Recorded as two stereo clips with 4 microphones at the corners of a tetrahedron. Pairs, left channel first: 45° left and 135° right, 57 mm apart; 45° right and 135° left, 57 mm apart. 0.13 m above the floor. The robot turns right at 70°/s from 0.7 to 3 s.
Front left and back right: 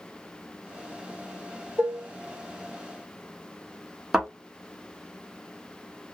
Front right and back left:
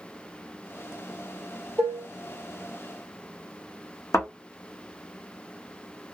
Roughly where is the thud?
Ahead right.